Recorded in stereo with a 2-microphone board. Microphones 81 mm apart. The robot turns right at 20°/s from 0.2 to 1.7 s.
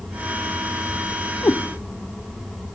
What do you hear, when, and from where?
1.4 s a cat meowing: 30° left (ahead or behind), 0.5 m